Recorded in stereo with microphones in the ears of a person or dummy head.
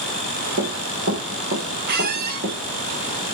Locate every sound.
0.6 s running footsteps: 45° right (ahead or behind), 3 m; by 2.6 s 60° right (ahead or behind), 4 m
1.9 s a squeak: 45° right (ahead or behind), 1.0 m